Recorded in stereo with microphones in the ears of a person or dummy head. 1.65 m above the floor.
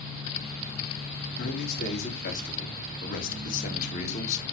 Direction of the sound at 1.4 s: 55° left (ahead or behind).